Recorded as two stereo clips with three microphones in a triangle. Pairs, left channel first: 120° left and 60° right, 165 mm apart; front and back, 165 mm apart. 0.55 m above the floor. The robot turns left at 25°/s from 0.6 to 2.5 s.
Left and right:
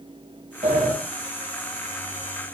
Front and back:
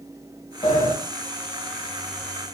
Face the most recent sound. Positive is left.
turn(degrees=-105)